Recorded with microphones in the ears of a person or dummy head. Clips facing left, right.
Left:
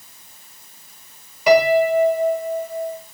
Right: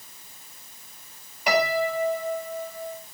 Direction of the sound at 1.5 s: 75° left (ahead or behind).